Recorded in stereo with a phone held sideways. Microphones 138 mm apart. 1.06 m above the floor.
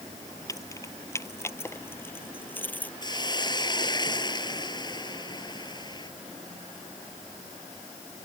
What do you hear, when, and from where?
0.5 s keys jangling: 20° left (ahead or behind); by 2.9 s 10° left (ahead or behind)
3.0 s a hiss: 30° left (ahead or behind)